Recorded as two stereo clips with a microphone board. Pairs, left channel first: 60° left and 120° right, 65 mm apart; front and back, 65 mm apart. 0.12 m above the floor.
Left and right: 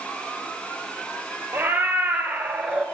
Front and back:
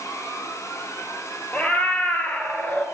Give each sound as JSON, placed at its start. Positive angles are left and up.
{"t": 1.5, "sound": "a cat meowing", "azimuth_deg": -65, "distance_m": 1.4}